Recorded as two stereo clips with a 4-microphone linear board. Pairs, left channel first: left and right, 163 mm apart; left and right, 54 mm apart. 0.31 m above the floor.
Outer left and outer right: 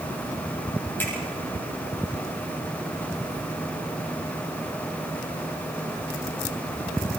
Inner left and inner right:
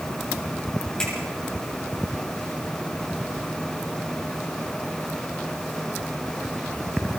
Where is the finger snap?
10° left (ahead or behind), 9 m.